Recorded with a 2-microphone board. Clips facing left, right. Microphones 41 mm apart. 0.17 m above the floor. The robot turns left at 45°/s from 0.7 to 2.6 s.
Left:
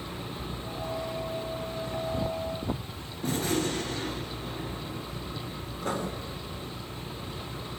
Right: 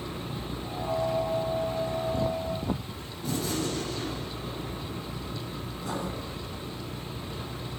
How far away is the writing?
About 3 m.